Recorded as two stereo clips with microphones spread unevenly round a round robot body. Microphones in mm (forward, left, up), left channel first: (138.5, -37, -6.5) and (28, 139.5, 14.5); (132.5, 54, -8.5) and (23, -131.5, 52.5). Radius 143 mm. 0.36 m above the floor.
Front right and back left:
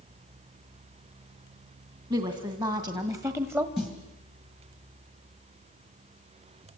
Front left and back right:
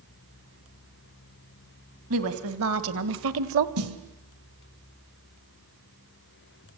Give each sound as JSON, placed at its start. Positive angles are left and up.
{"t": 2.1, "sound": "a woman speaking", "azimuth_deg": -160, "distance_m": 2.5}
{"t": 3.8, "sound": "a snare drum", "azimuth_deg": -145, "distance_m": 2.0}